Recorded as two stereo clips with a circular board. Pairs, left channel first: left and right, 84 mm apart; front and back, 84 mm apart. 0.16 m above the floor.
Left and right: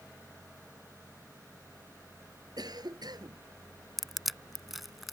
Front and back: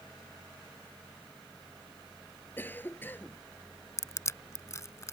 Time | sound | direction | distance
2.6 | a cough | 65° right | ?
4.0 | crushing | 5° right | ?